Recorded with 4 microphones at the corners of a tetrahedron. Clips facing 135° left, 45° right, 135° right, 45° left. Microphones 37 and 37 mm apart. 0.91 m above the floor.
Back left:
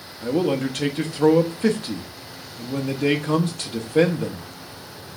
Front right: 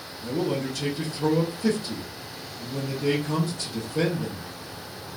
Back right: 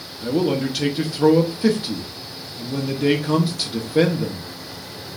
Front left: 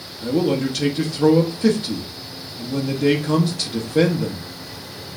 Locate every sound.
0.2 s a man speaking: 145° left, 0.9 m